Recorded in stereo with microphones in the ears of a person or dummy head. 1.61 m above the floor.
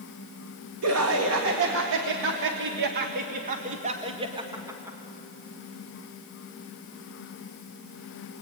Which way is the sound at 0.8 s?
80° right.